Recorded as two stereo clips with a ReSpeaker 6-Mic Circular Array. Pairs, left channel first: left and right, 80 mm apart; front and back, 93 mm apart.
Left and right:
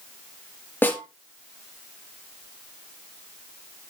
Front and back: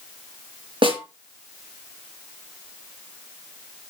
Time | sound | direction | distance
0.8 | a snare drum | 155° left | 3 m